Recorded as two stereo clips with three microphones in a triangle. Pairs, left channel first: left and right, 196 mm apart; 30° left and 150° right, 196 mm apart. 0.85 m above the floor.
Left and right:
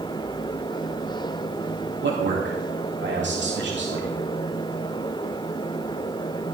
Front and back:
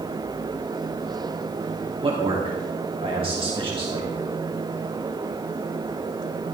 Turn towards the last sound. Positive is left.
turn(degrees=-90)